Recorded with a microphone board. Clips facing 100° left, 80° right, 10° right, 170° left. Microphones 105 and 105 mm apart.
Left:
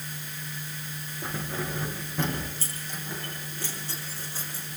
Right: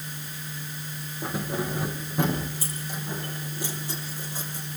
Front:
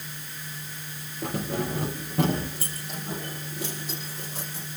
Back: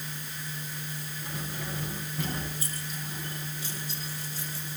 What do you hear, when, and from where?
1.2 s keys jangling: straight ahead, 4.5 m; by 4.7 s 5° right, 7.5 m